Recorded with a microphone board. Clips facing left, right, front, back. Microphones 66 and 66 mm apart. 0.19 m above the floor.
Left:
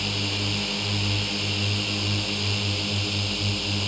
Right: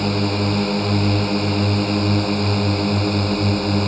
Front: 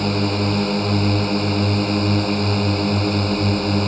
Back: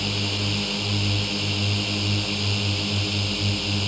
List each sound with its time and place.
0.0 s a drone: 45° right